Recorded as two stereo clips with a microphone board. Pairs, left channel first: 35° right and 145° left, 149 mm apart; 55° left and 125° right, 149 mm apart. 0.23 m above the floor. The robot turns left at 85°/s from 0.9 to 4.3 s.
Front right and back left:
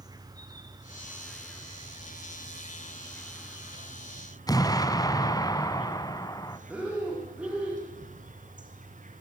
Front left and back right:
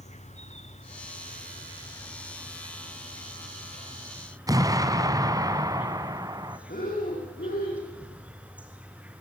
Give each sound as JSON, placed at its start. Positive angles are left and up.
{"t": 0.0, "sound": "an insect", "azimuth_deg": 85, "distance_m": 3.0}
{"t": 4.5, "sound": "an explosion", "azimuth_deg": -80, "distance_m": 1.8}
{"t": 6.7, "sound": "breathing", "azimuth_deg": 65, "distance_m": 9.5}